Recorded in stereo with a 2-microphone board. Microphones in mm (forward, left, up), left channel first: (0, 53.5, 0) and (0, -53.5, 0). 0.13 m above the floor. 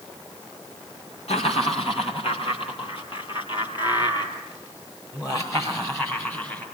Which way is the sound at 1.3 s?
65° left (ahead or behind).